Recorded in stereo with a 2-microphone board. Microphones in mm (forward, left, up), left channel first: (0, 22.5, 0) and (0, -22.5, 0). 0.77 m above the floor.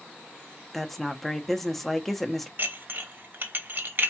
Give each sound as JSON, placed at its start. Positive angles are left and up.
{"t": 0.7, "sound": "a woman speaking", "side_deg": 5, "distance_m": 0.9}
{"t": 2.6, "sound": "dishes clattering", "side_deg": -50, "distance_m": 0.9}